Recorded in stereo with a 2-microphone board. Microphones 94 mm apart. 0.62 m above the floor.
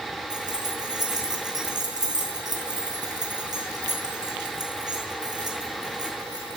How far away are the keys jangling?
About 4 m.